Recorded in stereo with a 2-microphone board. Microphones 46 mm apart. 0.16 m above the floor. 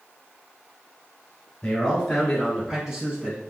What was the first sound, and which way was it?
A man speaking, 10° left (ahead or behind).